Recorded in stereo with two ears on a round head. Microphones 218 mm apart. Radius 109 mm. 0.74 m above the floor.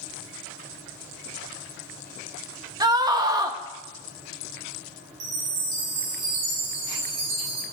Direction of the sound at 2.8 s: 15° right (ahead or behind).